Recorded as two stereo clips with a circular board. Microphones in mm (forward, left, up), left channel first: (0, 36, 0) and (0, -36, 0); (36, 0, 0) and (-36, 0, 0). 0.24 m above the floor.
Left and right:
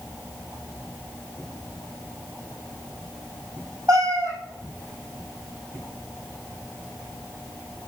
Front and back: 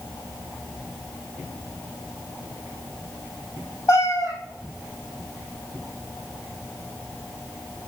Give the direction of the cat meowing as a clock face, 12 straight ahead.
1 o'clock.